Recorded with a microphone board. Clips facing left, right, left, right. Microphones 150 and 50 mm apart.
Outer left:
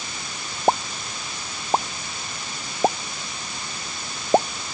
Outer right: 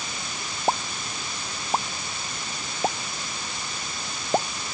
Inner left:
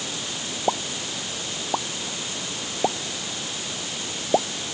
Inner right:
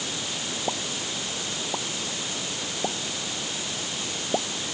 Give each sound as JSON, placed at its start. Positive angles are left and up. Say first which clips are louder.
{"t": 0.7, "sound": "a pop", "louder": "outer left 5 dB, inner left 7 dB", "side_deg": 30}